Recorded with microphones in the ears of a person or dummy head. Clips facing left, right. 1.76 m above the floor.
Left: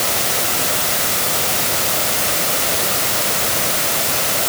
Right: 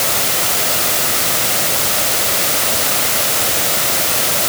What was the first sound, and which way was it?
Only background noise.